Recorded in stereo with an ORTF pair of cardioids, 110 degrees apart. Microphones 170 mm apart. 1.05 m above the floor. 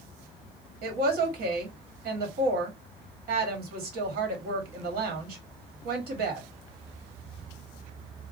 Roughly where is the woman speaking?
Ahead right.